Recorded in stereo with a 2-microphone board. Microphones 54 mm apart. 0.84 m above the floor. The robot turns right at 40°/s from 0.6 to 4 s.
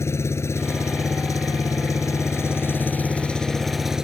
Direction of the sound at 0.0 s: 55° left.